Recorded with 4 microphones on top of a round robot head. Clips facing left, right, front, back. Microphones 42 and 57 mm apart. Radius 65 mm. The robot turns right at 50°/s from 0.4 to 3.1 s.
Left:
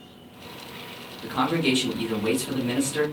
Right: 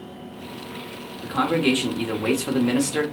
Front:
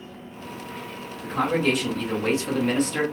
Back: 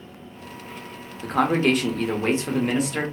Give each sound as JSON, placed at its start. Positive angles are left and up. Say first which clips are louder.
{"t": 1.2, "sound": "a man speaking", "louder": "right 3 dB, back 3 dB", "azimuth_deg": -175, "distance_m": 1.1}